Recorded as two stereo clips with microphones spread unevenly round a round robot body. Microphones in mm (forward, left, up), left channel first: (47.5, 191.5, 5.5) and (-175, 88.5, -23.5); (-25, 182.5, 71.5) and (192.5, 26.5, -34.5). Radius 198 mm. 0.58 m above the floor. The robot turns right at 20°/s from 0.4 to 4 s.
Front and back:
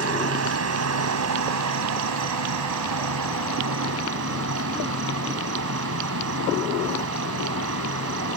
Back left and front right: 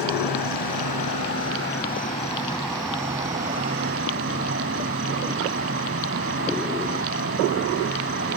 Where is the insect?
175° right; by 8.4 s 105° right.